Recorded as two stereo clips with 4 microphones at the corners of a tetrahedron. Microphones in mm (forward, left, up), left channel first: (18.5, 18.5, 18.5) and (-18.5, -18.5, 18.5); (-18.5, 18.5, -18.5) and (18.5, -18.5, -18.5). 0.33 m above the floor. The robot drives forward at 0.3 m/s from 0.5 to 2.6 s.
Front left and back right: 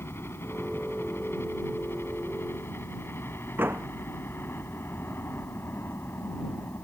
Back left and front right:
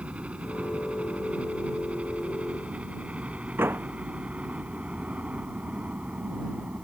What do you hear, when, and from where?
0.0 s a helicopter: 20° left; by 6.8 s 15° left
3.6 s a door slam: 90° right